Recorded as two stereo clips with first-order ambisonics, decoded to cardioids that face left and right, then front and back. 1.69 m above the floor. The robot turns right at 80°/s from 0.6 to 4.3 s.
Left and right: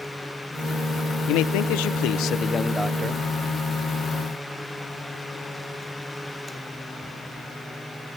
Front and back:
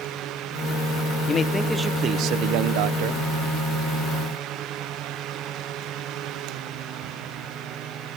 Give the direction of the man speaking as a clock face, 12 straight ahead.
10 o'clock.